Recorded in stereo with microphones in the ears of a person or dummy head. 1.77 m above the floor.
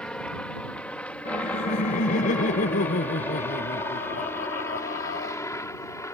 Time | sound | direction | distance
0.0 | a helicopter | 5° left (ahead or behind) | ?
1.2 | laughter | 55° left (ahead or behind) | ?